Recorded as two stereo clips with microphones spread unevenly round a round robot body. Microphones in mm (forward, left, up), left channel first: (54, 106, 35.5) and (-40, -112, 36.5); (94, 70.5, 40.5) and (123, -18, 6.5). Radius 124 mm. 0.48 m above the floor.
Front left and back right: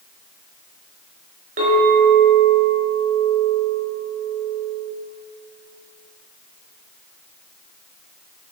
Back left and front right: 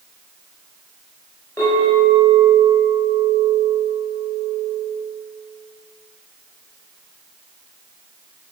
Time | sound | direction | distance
1.6 | a clink | 175° right | 4.5 m